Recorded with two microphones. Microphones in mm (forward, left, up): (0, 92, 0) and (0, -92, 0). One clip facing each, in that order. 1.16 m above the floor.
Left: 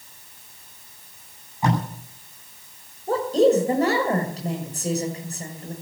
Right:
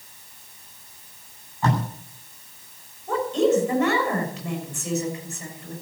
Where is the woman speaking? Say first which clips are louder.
Left 3 dB; 35° left (ahead or behind), 6.5 m.